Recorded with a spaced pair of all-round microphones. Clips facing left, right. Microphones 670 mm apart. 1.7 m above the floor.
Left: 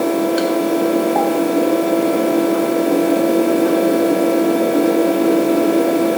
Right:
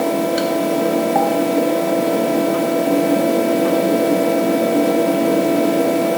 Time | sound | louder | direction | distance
0.0 | a fan | left 2 dB | 30° right (ahead or behind) | 1.0 m